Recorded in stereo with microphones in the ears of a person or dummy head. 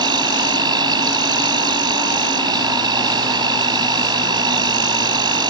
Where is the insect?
25° right (ahead or behind).